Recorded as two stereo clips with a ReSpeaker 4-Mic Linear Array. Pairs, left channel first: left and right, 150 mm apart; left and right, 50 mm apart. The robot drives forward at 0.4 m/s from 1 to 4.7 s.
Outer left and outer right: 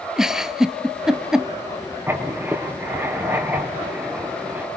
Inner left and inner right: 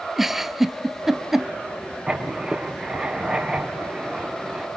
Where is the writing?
15° right (ahead or behind), 2.5 m; by 4.7 s 10° right (ahead or behind), 3.5 m.